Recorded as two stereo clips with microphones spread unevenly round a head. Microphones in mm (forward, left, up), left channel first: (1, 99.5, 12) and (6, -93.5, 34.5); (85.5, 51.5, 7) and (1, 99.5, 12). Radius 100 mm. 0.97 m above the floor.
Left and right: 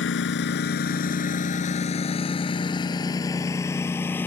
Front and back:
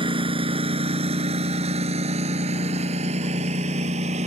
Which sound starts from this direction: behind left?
A lawn mower, at 0.0 s.